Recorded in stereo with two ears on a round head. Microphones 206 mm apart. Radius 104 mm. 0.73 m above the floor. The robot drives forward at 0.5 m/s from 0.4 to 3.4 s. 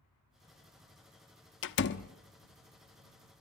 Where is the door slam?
55° left (ahead or behind), 1.0 m; by 2.1 s 50° left (ahead or behind), 1.1 m.